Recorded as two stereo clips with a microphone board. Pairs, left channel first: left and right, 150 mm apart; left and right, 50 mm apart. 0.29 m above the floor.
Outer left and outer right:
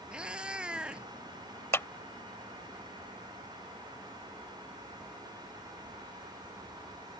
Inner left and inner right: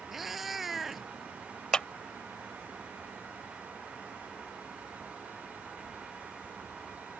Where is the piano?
I don't hear a piano.